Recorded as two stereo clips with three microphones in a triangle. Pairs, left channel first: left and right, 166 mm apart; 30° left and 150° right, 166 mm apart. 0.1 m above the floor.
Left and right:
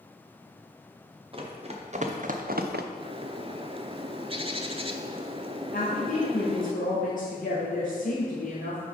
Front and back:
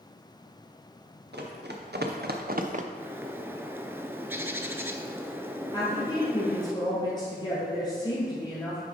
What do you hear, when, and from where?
1.3 s running footsteps: 150° right, 1.6 m; by 2.8 s 105° right, 0.7 m
2.9 s a bird: 85° right, 0.5 m
5.7 s a woman speaking: 85° left, 1.8 m